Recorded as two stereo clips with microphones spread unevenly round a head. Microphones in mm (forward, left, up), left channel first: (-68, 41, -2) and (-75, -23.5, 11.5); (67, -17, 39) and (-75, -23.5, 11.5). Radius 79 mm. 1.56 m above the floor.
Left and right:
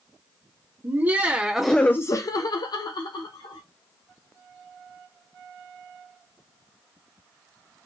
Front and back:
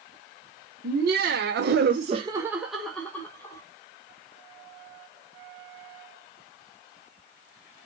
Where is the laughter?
155° right, 1.2 m; by 3.6 s 75° left, 1.7 m.